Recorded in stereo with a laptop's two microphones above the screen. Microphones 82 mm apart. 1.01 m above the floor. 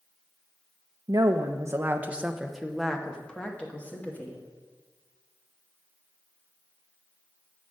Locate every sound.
1.1 s a woman speaking: 55° right (ahead or behind), 0.5 m; by 4.4 s 20° left (ahead or behind), 1.5 m